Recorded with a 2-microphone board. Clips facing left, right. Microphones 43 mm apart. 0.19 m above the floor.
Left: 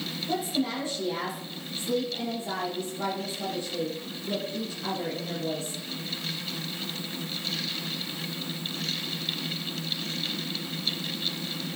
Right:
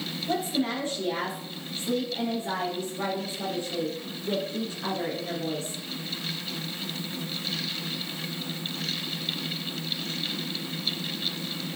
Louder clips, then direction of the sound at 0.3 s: Right 1 dB; 35° right (ahead or behind).